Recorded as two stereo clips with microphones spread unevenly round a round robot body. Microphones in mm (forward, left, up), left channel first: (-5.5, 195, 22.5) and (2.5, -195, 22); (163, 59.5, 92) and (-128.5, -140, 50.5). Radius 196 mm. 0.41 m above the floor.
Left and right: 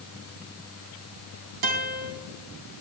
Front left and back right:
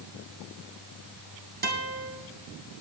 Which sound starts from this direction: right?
A guitar, at 1.6 s.